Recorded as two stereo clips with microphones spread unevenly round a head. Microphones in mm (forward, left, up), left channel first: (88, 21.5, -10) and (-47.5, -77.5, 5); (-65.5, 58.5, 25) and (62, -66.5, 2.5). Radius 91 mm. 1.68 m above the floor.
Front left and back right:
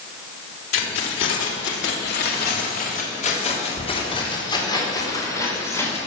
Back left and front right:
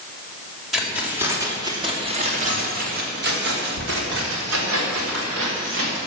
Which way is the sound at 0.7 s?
45° left.